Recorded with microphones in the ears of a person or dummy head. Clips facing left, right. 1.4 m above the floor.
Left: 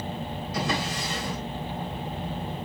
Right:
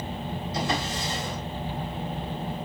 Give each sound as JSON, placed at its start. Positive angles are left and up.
{"t": 0.5, "sound": "a drawer", "side_deg": 65, "distance_m": 3.5}